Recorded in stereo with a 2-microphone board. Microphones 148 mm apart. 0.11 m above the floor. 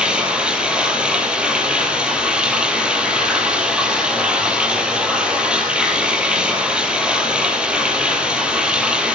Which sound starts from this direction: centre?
Running water, at 0.0 s.